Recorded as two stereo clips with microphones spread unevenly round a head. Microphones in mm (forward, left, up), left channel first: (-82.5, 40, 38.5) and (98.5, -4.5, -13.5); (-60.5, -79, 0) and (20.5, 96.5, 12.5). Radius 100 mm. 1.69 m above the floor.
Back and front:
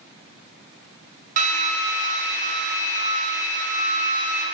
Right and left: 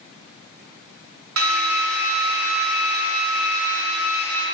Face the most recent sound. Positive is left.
turn(degrees=40)